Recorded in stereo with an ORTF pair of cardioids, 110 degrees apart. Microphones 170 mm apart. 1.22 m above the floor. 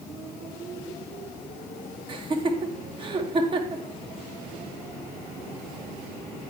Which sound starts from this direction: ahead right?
Laughter, at 2.1 s.